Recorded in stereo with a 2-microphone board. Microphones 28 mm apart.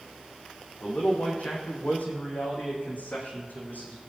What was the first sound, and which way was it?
A man speaking, 50° left (ahead or behind).